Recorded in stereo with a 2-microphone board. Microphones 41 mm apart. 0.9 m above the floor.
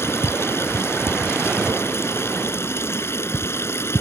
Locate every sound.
0.0 s running water: 80° left